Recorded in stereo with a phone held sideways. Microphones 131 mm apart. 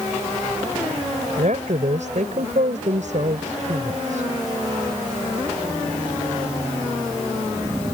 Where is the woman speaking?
65° right (ahead or behind).